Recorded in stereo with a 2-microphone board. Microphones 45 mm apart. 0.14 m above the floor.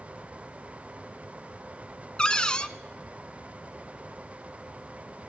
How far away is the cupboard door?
About 0.6 m.